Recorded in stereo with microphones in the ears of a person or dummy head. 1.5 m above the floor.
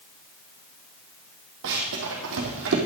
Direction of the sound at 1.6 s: 60° right (ahead or behind).